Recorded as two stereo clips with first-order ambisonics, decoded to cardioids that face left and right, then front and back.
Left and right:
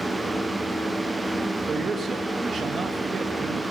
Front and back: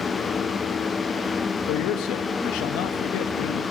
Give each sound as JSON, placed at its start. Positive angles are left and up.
{"t": 1.7, "sound": "a man speaking", "azimuth_deg": -25, "distance_m": 2.0}